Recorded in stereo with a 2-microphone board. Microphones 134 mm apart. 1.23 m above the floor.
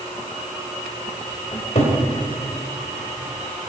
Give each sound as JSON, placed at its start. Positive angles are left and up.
{"t": 1.5, "sound": "a cupboard door", "side_deg": 55, "distance_m": 3.5}